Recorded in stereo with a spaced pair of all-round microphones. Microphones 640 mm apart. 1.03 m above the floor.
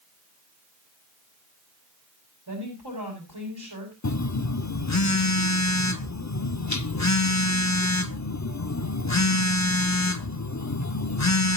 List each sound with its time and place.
2.5 s a woman speaking: 35° right (ahead or behind), 5 m
4.0 s a phone buzzing: 30° left (ahead or behind), 0.7 m